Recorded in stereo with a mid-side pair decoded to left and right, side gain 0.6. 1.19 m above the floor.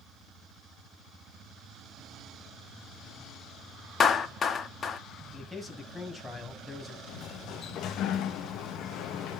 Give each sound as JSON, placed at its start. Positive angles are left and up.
{"t": 4.0, "sound": "a clap", "azimuth_deg": 35, "distance_m": 1.7}
{"t": 5.3, "sound": "a man speaking", "azimuth_deg": 10, "distance_m": 6.5}
{"t": 7.1, "sound": "a sliding door", "azimuth_deg": 60, "distance_m": 1.4}